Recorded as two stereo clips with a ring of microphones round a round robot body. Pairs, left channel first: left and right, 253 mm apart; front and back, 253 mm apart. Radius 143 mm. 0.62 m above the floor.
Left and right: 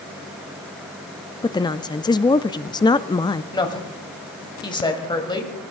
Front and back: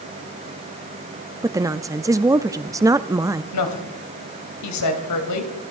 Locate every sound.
1.4 s a woman speaking: 125° left, 0.5 m
3.5 s a woman speaking: 15° left, 3 m